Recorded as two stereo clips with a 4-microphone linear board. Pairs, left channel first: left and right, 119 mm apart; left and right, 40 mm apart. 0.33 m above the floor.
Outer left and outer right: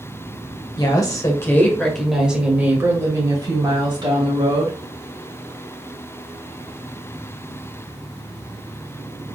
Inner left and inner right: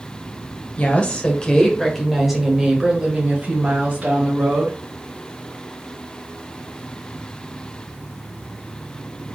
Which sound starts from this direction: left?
A woman speaking, at 0.8 s.